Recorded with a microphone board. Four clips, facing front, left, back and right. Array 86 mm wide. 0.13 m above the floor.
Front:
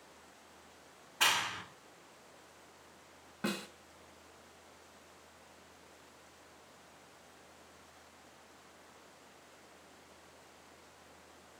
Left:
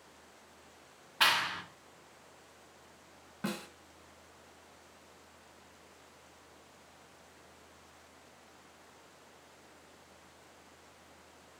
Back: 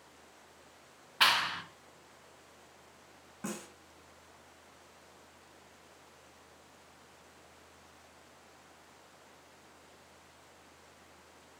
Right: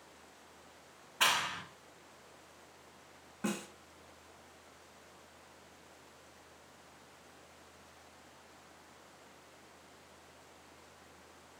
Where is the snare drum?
25° left, 0.9 m.